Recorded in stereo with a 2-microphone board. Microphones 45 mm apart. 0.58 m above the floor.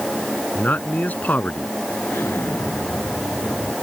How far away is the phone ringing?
No phone ringing in this recording.